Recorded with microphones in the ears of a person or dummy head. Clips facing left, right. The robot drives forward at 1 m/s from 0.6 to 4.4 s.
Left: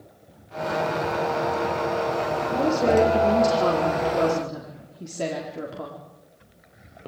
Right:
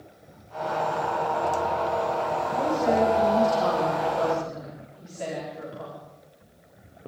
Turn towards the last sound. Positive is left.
turn(degrees=75)  # may be behind; listen again after turning